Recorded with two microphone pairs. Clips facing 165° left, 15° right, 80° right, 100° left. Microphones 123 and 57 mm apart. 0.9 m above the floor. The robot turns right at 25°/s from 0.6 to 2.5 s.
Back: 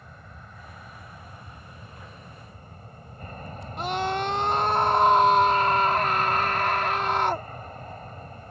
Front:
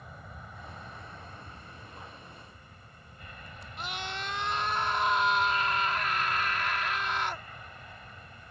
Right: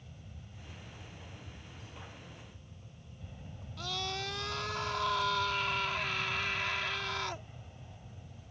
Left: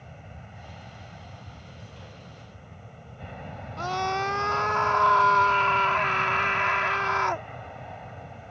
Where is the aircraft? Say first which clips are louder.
Even, left 9 dB; 70° left; by 8.5 s 115° left.